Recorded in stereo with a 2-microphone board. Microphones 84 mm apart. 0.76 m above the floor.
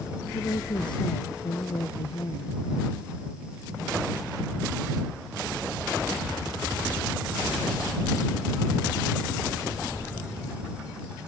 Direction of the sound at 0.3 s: 65° left (ahead or behind).